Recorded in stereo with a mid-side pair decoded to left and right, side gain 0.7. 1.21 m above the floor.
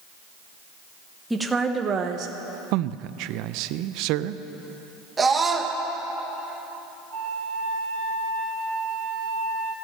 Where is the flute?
55° right, 3 m.